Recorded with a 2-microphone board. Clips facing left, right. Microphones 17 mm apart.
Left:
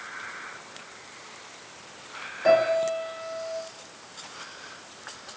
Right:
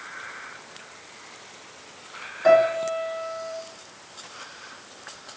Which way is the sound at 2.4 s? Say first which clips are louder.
Right 3 dB; 20° right (ahead or behind).